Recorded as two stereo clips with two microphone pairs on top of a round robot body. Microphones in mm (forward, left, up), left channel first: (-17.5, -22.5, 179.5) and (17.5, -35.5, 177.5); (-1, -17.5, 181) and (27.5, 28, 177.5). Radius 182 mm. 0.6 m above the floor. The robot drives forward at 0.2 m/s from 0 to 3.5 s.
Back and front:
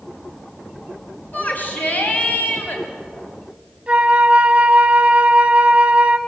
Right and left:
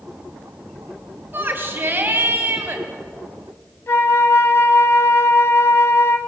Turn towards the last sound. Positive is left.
turn(degrees=-90)